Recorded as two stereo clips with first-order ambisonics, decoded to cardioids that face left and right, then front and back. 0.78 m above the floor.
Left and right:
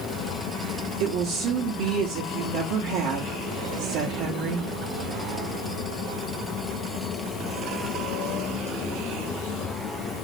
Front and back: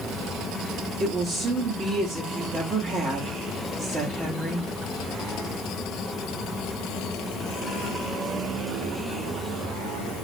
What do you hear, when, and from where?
1.0 s a woman speaking: 110° right, 0.9 m